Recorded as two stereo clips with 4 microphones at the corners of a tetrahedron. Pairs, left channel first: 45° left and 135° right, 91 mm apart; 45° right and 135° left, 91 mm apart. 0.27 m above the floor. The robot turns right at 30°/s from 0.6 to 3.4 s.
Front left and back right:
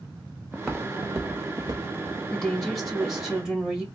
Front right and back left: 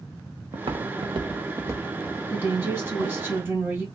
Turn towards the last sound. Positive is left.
turn(degrees=145)